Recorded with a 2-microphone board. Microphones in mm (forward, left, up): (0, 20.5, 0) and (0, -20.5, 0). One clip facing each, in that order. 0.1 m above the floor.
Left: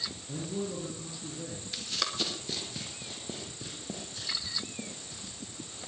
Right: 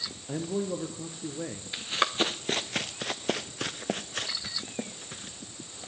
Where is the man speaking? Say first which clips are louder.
Right 5 dB; 50° right (ahead or behind), 1.6 m.